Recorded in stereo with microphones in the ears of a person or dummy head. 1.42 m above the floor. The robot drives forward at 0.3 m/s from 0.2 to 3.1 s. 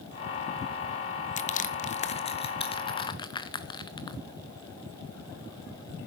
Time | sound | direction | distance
1.4 | crushing | 35° left (ahead or behind) | 0.6 m